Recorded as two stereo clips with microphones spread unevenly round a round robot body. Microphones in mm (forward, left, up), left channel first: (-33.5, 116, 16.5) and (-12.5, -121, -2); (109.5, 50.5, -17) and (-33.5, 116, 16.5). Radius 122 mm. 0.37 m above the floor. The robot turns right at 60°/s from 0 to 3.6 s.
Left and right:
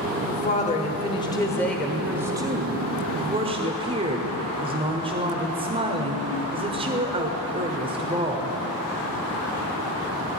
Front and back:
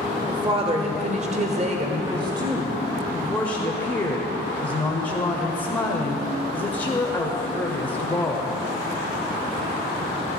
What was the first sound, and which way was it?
A woman speaking, 95° left.